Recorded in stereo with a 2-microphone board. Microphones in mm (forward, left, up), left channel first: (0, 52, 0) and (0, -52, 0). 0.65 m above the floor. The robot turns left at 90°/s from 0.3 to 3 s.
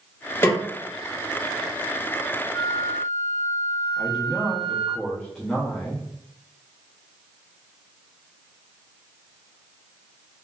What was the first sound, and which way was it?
A snare drum, 20° left (ahead or behind).